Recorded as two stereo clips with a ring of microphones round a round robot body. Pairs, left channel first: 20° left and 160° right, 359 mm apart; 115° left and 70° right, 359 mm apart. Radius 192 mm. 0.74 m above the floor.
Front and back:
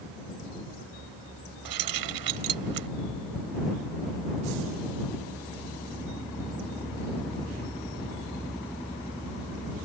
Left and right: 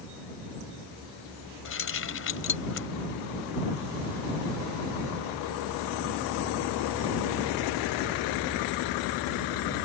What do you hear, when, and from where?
1.6 s keys jangling: 170° left